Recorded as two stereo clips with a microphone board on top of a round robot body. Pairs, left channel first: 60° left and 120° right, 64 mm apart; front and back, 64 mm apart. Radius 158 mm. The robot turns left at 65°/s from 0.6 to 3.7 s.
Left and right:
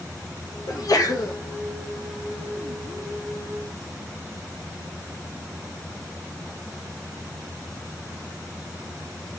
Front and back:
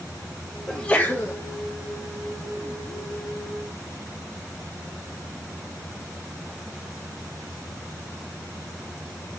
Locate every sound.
0.7 s a sneeze: 85° left, 1.1 m; by 1.4 s 35° left, 1.1 m